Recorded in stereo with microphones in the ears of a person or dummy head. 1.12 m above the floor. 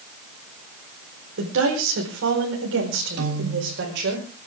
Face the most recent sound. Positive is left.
turn(degrees=-75)  # may be behind; listen again after turning